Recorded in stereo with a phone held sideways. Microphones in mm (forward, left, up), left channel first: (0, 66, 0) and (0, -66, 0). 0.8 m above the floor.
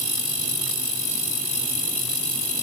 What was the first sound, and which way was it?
Only background noise.